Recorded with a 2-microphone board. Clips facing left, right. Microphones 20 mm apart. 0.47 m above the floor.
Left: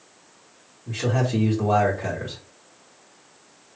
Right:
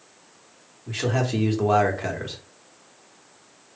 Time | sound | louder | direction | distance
0.9 | a man speaking | even | 20° right (ahead or behind) | 1.0 m